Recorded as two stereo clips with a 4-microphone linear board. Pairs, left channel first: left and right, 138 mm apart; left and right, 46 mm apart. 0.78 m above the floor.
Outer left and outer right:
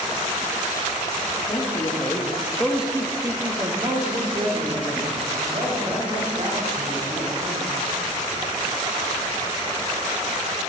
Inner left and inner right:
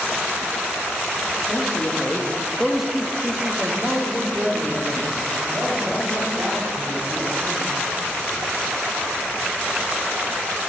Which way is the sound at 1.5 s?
35° left (ahead or behind).